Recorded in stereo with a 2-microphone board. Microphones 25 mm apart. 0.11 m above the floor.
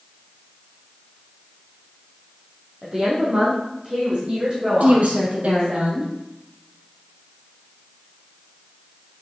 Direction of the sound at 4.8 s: 65° right (ahead or behind).